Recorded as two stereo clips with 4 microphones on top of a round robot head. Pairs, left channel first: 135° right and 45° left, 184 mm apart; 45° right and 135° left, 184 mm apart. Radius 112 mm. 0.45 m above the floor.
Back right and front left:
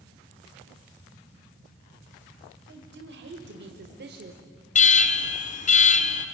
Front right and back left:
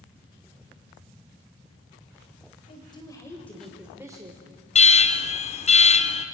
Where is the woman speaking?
15° left, 2 m; by 4.4 s 75° left, 1.4 m.